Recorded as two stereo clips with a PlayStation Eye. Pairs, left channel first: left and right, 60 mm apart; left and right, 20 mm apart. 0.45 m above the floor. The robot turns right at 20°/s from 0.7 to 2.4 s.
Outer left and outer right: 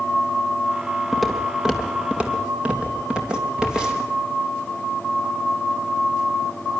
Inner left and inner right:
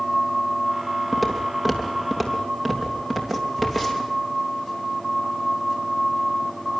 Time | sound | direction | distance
1.1 | footsteps | 5° right (ahead or behind) | 3 m